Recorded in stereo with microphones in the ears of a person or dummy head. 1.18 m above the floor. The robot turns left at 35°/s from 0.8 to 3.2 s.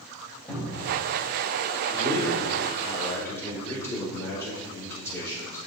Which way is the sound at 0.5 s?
5° left (ahead or behind).